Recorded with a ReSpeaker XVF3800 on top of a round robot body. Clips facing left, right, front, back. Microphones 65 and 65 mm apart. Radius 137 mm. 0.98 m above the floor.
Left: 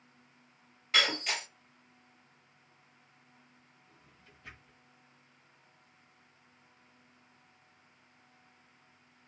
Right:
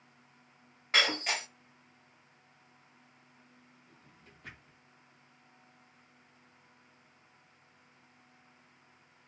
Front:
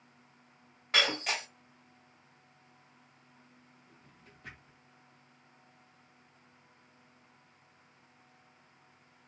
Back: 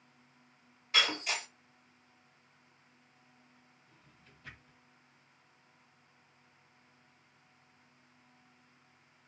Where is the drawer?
45° right, 1.0 m.